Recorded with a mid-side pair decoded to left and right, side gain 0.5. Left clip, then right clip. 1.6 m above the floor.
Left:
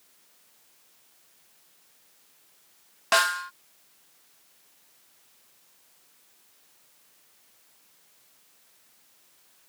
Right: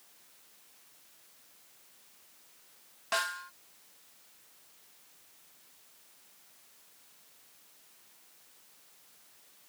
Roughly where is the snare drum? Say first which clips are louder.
Left 10 dB; ahead left.